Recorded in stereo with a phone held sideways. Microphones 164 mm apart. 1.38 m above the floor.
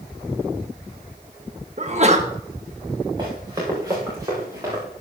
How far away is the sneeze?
About 1.4 m.